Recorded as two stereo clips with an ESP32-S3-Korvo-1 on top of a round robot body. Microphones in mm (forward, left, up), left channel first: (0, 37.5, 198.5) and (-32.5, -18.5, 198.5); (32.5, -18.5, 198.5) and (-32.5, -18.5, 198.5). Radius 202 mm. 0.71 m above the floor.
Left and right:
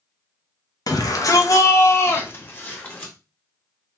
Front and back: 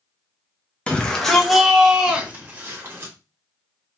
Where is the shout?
75° left, 1.1 m; by 3.1 s 130° left, 1.6 m.